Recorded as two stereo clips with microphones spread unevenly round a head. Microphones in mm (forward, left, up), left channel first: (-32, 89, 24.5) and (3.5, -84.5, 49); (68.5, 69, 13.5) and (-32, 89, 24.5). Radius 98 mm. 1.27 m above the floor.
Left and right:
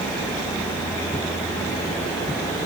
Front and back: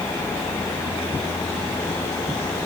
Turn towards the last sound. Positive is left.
No sound to turn to.